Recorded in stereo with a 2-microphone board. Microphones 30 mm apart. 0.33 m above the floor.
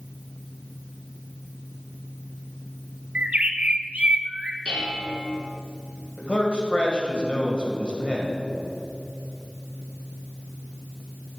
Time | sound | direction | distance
3.1 | a bird | 60° right (ahead or behind) | 0.8 m
4.7 | dishes clattering | 50° left (ahead or behind) | 3 m
6.2 | a man speaking | 45° left (ahead or behind) | 1.9 m